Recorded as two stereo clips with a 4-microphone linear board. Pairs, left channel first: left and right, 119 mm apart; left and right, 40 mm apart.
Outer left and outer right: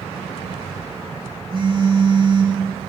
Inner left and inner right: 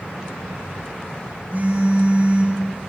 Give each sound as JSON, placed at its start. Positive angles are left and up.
{"t": 1.5, "sound": "a phone buzzing", "side_deg": -50, "distance_m": 5.0}